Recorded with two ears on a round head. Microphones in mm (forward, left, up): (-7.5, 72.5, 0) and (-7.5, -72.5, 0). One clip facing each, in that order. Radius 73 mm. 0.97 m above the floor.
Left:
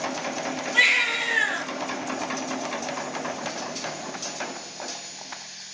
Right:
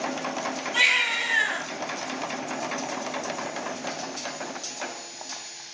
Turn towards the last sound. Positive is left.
turn(degrees=-70)  # may be behind; listen again after turning